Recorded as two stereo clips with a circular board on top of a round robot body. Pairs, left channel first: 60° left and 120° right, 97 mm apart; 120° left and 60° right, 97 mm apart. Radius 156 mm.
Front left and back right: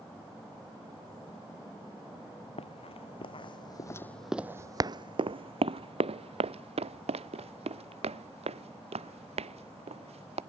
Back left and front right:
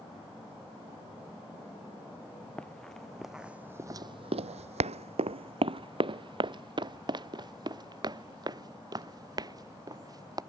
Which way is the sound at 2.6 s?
40° left.